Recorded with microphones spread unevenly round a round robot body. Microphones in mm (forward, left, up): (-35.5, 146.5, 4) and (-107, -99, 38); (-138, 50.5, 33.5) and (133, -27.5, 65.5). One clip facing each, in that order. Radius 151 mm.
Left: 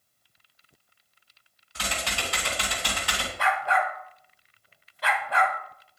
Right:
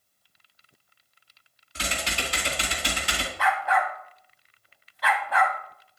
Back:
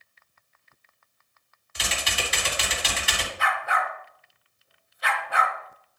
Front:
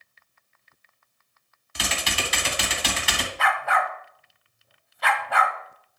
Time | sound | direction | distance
1.8 | typing on a keyboard | 35° right | 2 m
3.4 | a dog barking | 5° left | 1.2 m